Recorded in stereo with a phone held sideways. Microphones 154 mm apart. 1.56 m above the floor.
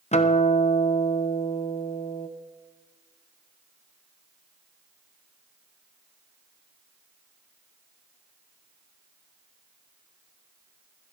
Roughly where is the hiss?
No hiss in this recording.